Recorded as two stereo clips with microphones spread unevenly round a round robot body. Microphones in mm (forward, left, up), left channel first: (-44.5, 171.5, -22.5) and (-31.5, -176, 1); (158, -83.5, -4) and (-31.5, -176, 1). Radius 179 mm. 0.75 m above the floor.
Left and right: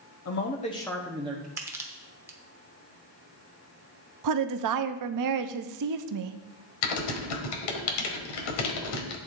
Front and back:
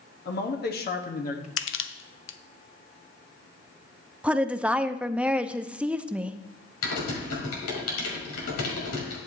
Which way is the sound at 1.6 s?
5° right.